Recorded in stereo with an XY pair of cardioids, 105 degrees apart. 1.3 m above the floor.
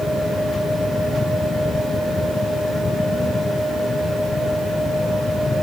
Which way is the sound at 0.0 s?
25° left.